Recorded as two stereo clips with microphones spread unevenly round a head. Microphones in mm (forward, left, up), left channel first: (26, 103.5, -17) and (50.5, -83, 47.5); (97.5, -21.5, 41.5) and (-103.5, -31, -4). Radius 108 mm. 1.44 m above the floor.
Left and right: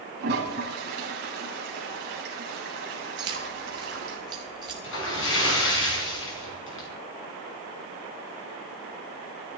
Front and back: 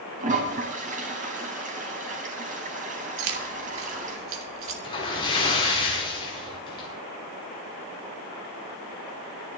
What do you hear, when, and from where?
0.2 s a toilet flushing: 120° right, 4 m
3.2 s keys jangling: 150° right, 2 m
4.8 s a splash: 70° left, 5.5 m